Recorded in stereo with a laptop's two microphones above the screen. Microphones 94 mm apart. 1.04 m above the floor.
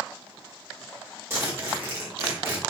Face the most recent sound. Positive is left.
turn(degrees=-25)  # may be behind; listen again after turning